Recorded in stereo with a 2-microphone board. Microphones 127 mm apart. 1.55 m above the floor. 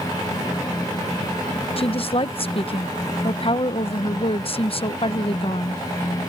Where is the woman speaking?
45° left (ahead or behind).